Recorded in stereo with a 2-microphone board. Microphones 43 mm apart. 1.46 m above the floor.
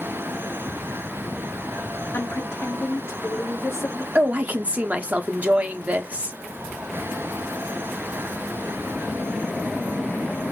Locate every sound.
2.1 s a woman speaking: 75° left (ahead or behind), 1.8 m
4.2 s a woman speaking: 40° right (ahead or behind), 0.9 m